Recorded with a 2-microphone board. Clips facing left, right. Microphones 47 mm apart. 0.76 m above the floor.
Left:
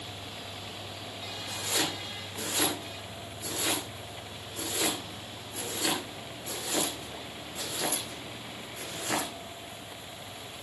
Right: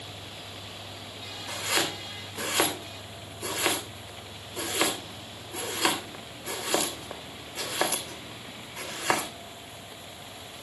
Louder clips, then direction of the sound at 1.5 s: Right 4 dB; 75° right (ahead or behind).